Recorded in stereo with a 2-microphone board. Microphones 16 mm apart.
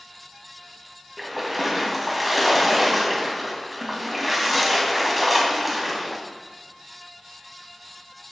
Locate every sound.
1.2 s a splash: 5° right (ahead or behind), 2 m